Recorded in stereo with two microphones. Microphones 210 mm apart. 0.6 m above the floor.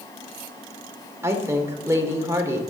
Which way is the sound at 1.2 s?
15° right (ahead or behind).